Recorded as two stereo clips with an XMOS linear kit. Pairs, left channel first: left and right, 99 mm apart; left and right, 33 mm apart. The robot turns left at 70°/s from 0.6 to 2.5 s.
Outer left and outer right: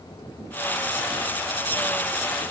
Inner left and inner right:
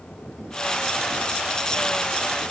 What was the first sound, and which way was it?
Only background noise.